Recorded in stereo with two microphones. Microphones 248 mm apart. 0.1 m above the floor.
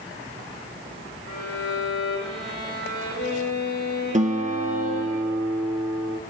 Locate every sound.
1.3 s a violin: 75° left (ahead or behind), 6.5 m
4.1 s a guitar: 30° right (ahead or behind), 1.2 m